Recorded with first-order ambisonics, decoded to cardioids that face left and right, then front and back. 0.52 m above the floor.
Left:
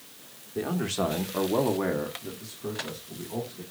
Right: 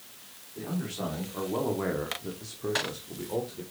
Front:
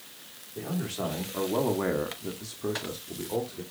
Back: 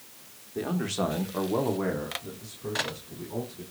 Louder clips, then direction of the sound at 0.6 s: Left 7 dB, back 4 dB; 125° left.